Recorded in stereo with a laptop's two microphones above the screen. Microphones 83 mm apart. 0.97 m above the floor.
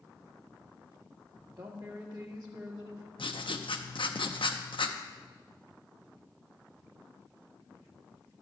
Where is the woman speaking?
50° right (ahead or behind), 1.6 m.